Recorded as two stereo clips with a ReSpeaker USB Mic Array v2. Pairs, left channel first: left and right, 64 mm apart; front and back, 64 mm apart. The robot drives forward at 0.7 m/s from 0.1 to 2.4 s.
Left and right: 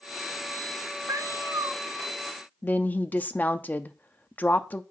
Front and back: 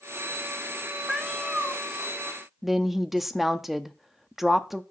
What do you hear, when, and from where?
1.1 s a cat meowing: 85° right, 0.8 m; by 1.8 s 115° right, 0.9 m
2.6 s a woman speaking: 100° left, 0.6 m